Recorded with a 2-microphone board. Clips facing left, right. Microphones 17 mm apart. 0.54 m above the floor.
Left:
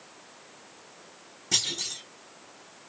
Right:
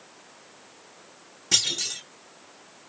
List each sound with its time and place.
1.5 s a clunk: 25° right (ahead or behind), 1.1 m